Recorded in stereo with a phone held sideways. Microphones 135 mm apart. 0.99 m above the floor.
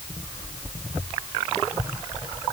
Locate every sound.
Only background noise.